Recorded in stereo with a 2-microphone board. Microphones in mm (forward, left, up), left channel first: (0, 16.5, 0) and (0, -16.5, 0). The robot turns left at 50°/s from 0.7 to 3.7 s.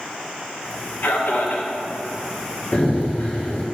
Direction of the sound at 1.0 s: 105° left.